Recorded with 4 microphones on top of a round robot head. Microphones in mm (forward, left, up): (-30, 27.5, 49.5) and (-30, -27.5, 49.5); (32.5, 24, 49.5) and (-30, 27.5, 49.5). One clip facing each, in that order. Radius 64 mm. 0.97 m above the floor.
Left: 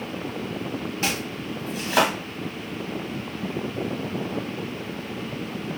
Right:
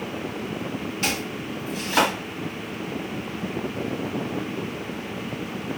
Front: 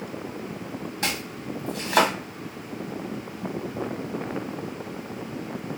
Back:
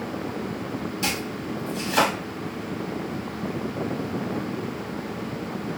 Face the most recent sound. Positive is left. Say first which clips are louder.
# right 1 dB, back 2 dB
turn(degrees=25)